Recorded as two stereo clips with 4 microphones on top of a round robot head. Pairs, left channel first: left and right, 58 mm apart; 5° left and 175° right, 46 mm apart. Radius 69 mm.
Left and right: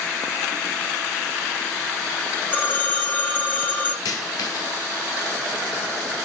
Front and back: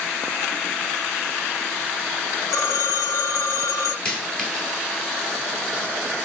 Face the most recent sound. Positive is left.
turn(degrees=75)